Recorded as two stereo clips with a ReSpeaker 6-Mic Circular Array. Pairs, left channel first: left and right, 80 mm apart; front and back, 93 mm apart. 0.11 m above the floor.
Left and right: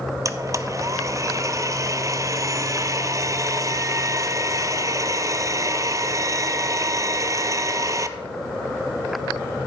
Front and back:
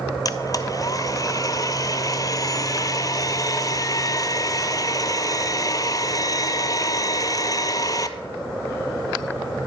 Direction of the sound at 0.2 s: 45° right.